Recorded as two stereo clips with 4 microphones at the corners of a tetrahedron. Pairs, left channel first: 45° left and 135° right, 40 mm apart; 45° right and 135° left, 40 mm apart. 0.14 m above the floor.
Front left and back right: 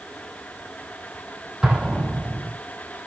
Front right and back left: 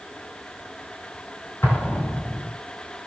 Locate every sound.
1.6 s an explosion: 55° right, 4 m